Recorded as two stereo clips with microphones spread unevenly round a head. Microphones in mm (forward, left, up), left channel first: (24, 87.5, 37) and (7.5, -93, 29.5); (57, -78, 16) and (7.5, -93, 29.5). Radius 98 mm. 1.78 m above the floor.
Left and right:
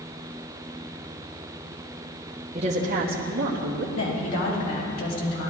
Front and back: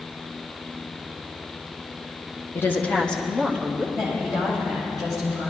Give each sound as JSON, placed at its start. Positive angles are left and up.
{"t": 2.5, "sound": "a woman speaking", "azimuth_deg": -35, "distance_m": 1.0}
{"t": 4.0, "sound": "a woman speaking", "azimuth_deg": 75, "distance_m": 3.5}